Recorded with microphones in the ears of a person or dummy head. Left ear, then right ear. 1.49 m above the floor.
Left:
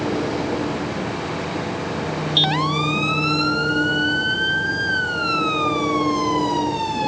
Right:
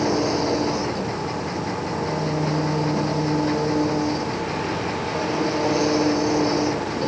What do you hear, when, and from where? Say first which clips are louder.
0.0 s an engine running: right 2 dB; 65° right (ahead or behind)